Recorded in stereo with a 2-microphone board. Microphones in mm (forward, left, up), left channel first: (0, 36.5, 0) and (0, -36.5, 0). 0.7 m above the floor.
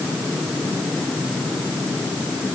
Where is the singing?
I don't hear singing.